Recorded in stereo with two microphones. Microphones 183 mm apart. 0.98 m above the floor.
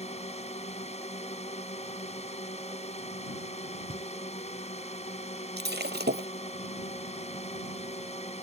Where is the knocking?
35° right (ahead or behind).